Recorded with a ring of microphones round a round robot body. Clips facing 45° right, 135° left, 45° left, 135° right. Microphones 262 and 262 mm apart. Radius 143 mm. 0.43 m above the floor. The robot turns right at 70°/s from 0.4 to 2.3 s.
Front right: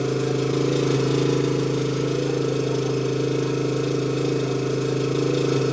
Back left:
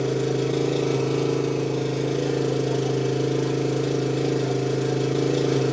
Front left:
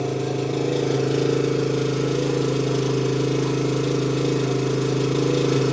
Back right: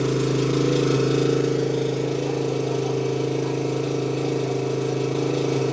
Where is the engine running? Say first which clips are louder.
Even, back right 3 dB; 110° right, 1.0 m; by 5.7 s 25° left, 1.0 m.